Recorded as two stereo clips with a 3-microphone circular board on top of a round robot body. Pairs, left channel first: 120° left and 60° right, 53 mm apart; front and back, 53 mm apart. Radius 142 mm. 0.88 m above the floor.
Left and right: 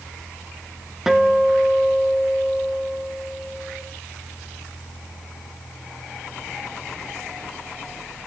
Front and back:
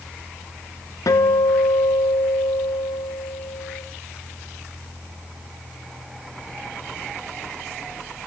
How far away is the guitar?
About 0.6 m.